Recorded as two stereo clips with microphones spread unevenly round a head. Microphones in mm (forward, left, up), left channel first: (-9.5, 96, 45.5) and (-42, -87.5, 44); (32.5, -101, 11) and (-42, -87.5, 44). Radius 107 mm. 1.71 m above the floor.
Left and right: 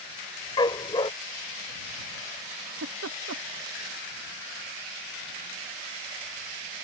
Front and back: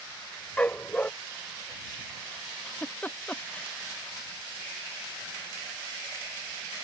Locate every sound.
0.6 s a dog barking: 110° left
2.7 s a giggle: 85° right